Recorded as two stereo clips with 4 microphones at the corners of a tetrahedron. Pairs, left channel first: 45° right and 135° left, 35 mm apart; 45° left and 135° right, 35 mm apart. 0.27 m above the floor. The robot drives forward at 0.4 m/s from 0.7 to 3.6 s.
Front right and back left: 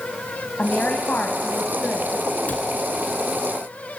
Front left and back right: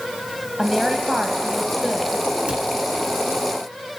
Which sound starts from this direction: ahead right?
A woman speaking, at 0.6 s.